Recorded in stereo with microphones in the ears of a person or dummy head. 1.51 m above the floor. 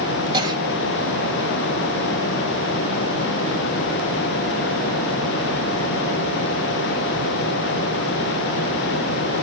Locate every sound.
0.3 s a cough: 25° right (ahead or behind), 3 m